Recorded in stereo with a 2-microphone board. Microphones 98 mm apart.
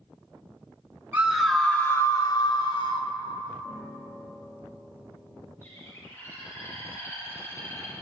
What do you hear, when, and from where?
1.1 s a scream: 15° right (ahead or behind), 0.9 m; by 3.1 s 60° left (ahead or behind), 1.7 m
3.6 s a piano: 45° left (ahead or behind), 6.5 m
5.6 s a bird: 25° left (ahead or behind), 5.5 m